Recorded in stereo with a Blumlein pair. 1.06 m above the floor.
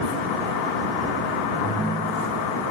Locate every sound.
1.6 s a ringtone: 10° right